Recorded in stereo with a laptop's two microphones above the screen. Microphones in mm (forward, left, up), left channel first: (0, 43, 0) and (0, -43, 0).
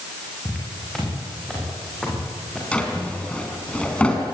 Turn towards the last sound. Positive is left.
turn(degrees=15)  # may be behind; listen again after turning